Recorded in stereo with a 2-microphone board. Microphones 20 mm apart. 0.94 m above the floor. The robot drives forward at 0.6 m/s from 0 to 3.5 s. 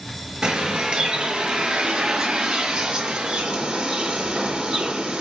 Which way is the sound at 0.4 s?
45° right (ahead or behind).